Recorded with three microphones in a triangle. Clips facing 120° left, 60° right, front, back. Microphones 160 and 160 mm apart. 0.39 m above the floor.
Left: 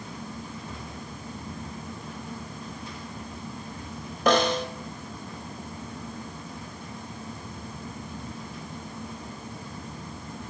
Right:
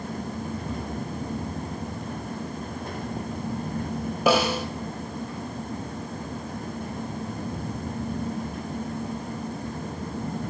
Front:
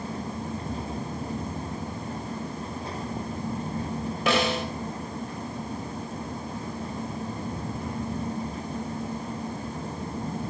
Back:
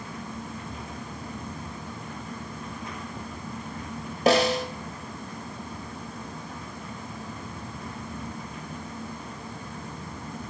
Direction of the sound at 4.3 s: 140° right.